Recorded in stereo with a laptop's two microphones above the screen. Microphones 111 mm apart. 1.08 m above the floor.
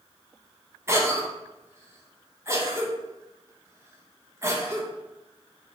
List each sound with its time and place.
0.9 s a cough: 25° right (ahead or behind), 1.3 m